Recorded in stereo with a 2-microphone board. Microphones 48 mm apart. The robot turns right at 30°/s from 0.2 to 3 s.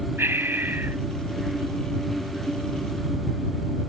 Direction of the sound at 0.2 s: 60° right (ahead or behind).